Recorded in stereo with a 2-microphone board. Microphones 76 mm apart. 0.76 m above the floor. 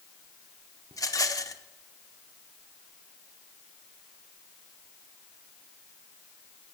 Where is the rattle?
50° left (ahead or behind), 0.8 m.